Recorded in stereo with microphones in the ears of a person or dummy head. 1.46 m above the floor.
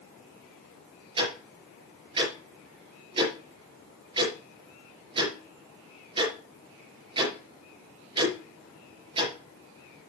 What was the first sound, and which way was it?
Ticking, 25° right (ahead or behind).